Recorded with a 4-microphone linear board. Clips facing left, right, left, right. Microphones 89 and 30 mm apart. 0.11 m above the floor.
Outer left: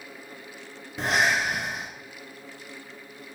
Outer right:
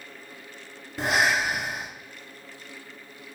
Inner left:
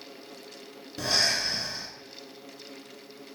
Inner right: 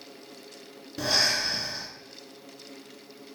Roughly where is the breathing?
Centre.